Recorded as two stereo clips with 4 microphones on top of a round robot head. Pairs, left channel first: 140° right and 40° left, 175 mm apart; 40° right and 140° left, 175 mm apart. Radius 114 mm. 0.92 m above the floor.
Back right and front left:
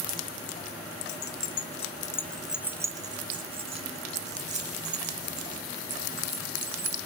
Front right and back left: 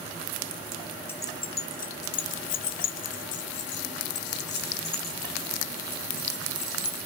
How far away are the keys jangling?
About 1.1 m.